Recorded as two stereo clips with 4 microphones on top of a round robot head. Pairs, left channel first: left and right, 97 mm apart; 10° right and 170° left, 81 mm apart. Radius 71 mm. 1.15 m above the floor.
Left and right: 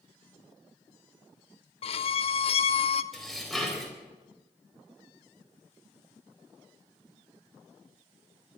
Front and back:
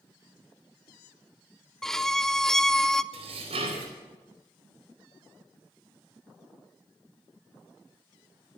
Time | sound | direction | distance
1.8 | a violin | 75° left | 0.7 m
3.1 | dishes clattering | straight behind | 4.5 m